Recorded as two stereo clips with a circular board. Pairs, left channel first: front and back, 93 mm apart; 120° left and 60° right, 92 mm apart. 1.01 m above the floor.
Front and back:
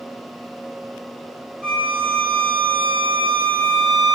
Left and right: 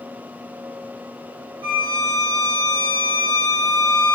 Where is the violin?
95° right, 0.6 m.